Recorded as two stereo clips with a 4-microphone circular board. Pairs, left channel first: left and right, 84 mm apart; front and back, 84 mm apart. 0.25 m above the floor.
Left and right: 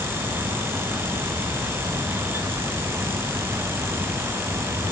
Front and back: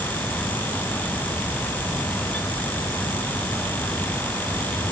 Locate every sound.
Only background noise.